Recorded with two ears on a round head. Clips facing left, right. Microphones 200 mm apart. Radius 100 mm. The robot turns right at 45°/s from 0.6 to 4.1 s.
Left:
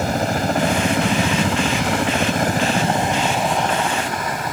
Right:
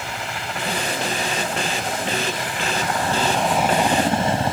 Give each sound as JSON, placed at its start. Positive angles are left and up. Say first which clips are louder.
{"t": 0.0, "sound": "a helicopter", "louder": "left 11 dB", "side_deg": 35}